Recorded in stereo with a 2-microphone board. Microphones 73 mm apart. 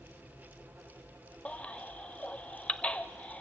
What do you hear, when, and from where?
1.4 s a baby crying: 15° left (ahead or behind), 0.6 m